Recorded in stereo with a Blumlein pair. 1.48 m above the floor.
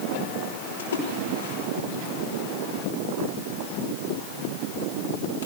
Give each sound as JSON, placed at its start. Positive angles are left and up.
{"t": 0.8, "sound": "a splash", "azimuth_deg": 65, "distance_m": 5.5}